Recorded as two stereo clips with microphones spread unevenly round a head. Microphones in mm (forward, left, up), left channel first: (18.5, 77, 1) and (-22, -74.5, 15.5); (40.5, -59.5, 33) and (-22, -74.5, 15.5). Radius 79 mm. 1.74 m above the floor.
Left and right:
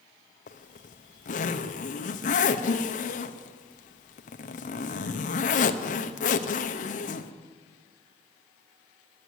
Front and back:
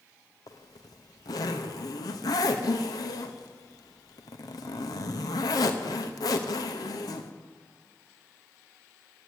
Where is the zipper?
35° left, 0.7 m.